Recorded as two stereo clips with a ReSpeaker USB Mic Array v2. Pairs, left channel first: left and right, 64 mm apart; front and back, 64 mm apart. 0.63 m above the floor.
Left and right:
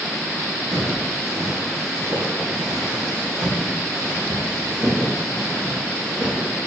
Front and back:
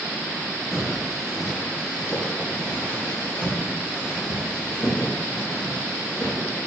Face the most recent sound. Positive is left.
turn(degrees=-40)